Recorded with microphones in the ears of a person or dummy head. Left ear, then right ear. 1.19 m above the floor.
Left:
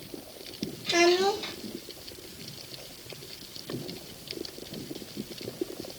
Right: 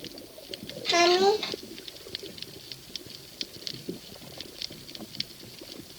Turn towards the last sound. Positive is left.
turn(degrees=-45)  # may be behind; listen again after turning